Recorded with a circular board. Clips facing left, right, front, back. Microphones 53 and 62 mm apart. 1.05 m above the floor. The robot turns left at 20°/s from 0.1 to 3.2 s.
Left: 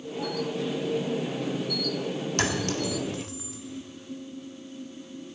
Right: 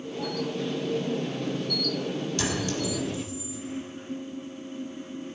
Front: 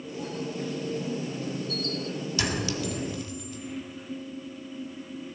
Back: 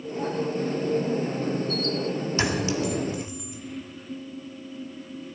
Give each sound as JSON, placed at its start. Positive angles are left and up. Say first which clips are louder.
{"t": 2.4, "sound": "a clink", "louder": "left 3 dB, back 4 dB", "azimuth_deg": 125, "distance_m": 1.6}